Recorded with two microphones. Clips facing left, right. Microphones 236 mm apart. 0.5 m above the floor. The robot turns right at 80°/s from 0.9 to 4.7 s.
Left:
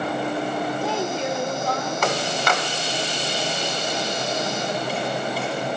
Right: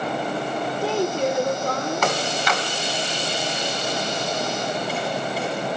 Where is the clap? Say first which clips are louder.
Left 3 dB; 60° left (ahead or behind), 3 m; by 2.6 s 70° left (ahead or behind), 3 m.